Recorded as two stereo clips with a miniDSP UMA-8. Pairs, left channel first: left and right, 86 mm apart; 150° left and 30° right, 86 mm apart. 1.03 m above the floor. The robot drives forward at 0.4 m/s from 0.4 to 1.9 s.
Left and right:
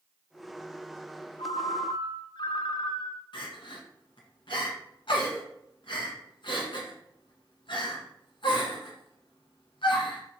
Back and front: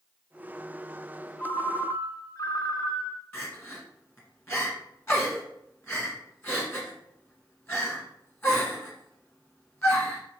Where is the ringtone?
80° left, 0.5 m; by 3.2 s 100° left, 0.5 m.